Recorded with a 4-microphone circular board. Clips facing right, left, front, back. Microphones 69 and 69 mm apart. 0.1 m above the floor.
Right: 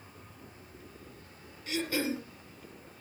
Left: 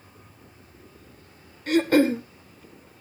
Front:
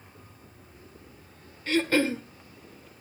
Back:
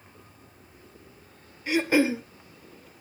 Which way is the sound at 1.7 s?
105° left.